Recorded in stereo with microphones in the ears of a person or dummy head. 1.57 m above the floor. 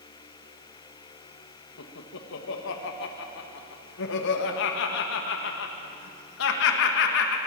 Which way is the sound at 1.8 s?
75° left (ahead or behind).